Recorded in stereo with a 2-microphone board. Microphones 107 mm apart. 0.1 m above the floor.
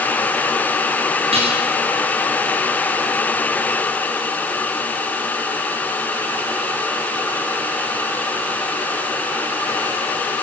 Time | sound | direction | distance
1.3 | dishes clattering | 65° right (ahead or behind) | 5.5 m